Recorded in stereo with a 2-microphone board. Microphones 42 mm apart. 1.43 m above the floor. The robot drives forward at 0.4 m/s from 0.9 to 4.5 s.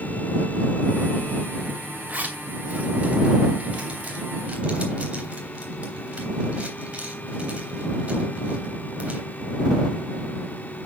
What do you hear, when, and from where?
2.1 s a zipper: 40° right (ahead or behind), 2.5 m; by 9.3 s 30° right (ahead or behind), 3 m